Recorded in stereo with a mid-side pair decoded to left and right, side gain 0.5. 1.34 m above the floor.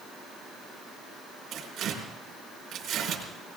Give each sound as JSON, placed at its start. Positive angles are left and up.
{"t": 1.5, "sound": "tearing paper", "azimuth_deg": -60, "distance_m": 5.0}